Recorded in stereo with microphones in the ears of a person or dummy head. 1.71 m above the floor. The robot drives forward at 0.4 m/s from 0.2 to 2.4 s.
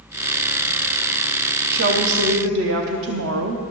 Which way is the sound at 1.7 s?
55° right (ahead or behind).